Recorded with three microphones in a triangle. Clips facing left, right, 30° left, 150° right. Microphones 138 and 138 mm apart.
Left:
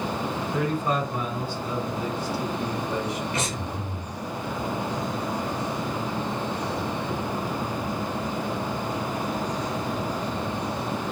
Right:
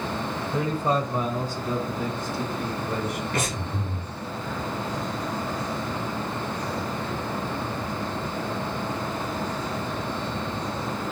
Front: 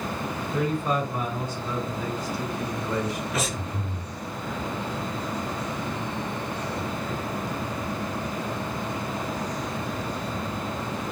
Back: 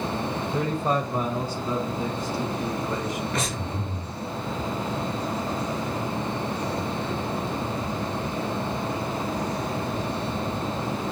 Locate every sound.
0.5 s a man speaking: 145° right, 1.2 m; by 3.2 s 85° right, 1.9 m
3.3 s breathing: 55° right, 1.1 m